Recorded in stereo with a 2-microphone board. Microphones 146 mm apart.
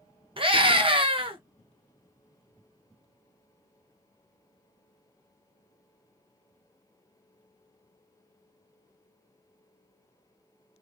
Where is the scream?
40° right (ahead or behind), 0.8 m.